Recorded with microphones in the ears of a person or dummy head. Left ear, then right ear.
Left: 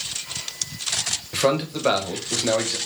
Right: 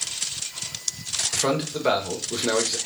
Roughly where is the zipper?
I don't hear a zipper.